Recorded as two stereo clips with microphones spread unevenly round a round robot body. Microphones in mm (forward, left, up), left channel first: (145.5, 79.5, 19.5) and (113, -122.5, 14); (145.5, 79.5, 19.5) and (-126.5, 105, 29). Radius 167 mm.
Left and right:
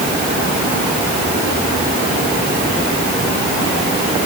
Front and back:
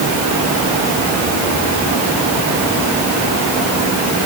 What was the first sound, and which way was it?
Only background noise.